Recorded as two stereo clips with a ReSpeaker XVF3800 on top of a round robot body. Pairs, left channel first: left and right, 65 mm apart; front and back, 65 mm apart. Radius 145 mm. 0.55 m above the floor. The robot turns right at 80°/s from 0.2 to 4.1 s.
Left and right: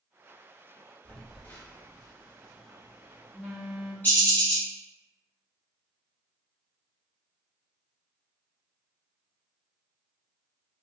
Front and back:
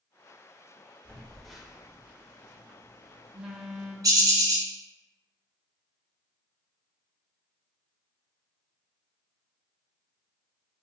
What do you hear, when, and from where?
1.1 s a phone buzzing: 50° left, 1.2 m; by 3.9 s 80° right, 1.2 m
4.0 s a bird: 155° left, 1.8 m; by 4.7 s 160° left, 1.8 m